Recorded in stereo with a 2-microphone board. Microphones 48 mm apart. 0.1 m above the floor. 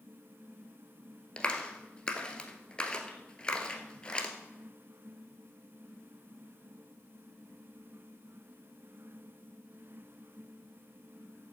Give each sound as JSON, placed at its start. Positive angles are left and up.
{"t": 1.4, "sound": "a clap", "side_deg": 20, "distance_m": 1.4}